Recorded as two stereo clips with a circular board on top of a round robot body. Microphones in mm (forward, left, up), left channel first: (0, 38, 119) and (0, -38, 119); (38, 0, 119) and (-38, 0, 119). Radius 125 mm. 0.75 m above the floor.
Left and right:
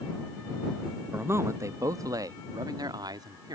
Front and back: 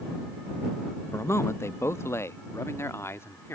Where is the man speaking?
40° right; by 3.5 s 55° right.